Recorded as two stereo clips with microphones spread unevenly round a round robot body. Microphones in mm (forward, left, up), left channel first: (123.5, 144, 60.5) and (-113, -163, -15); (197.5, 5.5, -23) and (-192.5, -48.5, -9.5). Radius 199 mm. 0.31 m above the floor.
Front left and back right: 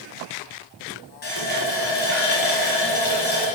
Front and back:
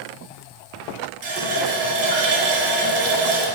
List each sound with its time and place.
1.2 s a running tap: 125° left, 1.7 m